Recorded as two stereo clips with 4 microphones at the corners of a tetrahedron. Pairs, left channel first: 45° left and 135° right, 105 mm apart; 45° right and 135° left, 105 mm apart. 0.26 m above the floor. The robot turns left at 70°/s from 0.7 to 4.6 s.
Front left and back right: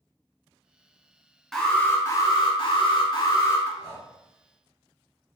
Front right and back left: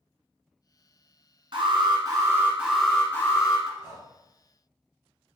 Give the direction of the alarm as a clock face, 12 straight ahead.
8 o'clock.